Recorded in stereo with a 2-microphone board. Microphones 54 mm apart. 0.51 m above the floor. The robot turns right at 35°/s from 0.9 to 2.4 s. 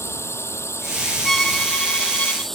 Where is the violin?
5° left; by 2.5 s 45° left.